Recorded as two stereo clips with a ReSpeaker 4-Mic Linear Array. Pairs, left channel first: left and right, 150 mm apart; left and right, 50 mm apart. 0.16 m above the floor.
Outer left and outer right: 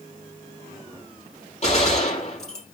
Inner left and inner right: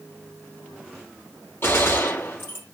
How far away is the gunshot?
About 3.5 m.